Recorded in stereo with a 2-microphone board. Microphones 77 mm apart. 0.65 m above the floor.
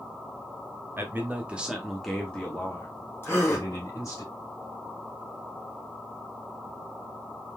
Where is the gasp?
35° left (ahead or behind), 2.5 m.